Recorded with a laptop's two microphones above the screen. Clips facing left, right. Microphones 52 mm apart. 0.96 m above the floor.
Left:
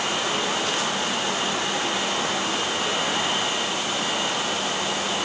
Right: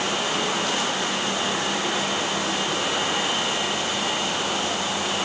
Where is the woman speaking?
No woman speaking in this recording.